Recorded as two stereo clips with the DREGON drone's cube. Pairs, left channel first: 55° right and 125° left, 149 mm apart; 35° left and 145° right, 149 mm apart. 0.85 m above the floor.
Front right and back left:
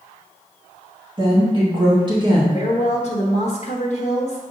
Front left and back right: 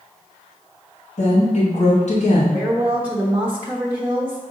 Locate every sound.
1.2 s a woman speaking: 70° left, 1.4 m
2.5 s a woman speaking: 70° right, 1.0 m